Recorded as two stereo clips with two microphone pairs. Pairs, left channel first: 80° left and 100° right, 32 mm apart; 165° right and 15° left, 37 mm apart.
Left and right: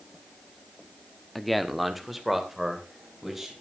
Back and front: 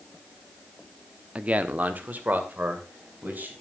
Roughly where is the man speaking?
Ahead.